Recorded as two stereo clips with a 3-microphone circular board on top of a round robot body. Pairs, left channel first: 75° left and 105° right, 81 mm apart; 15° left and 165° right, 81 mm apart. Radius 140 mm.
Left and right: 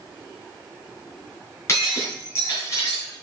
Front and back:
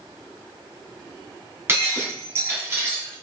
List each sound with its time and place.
1.7 s breaking glass: 130° left, 2.5 m